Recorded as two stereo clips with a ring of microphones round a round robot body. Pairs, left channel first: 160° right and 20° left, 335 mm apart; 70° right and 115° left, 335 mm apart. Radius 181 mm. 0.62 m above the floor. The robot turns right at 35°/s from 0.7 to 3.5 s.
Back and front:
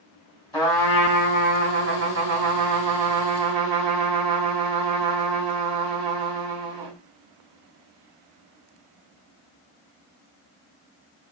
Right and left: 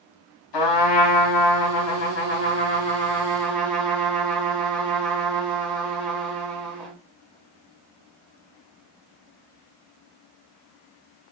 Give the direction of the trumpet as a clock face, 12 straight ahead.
3 o'clock.